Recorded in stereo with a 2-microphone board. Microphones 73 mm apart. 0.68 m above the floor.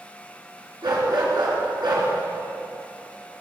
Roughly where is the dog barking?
Right.